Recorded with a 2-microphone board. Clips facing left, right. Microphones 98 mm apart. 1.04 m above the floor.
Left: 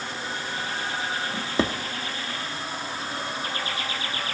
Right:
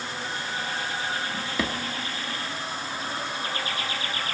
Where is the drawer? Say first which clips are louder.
Left 3 dB; 30° left (ahead or behind), 0.6 m.